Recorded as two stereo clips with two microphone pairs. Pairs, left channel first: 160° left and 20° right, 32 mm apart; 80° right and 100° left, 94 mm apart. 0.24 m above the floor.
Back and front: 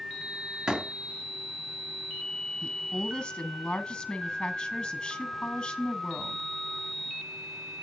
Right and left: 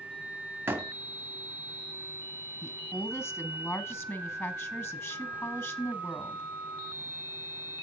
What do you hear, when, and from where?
0.7 s a door slam: 40° left, 1.5 m
2.6 s a woman speaking: 140° right, 1.6 m